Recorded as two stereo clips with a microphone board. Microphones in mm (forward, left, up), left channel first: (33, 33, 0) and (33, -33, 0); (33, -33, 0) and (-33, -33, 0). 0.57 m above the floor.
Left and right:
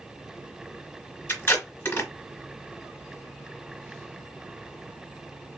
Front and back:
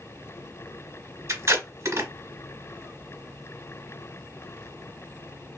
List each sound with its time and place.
1.3 s tape being pulled: 145° left, 1.8 m